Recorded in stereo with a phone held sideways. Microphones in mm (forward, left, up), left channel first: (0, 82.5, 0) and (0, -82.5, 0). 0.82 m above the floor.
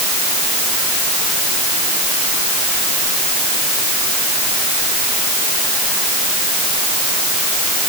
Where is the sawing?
I don't hear sawing.